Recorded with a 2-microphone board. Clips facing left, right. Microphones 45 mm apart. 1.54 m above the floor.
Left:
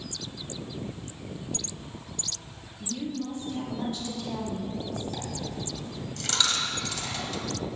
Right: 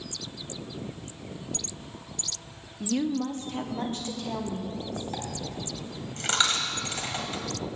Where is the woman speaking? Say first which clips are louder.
Right 6 dB; 75° right (ahead or behind), 0.8 m; by 5.0 s 35° right (ahead or behind), 2.5 m.